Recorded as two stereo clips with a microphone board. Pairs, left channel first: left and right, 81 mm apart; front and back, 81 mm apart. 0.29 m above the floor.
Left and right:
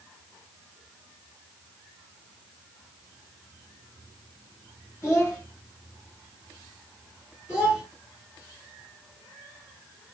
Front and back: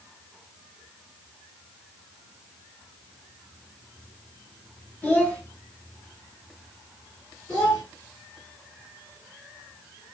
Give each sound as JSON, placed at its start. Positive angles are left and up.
{"t": 5.0, "sound": "a child speaking", "azimuth_deg": 55, "distance_m": 1.0}
{"t": 7.5, "sound": "a child speaking", "azimuth_deg": 60, "distance_m": 1.0}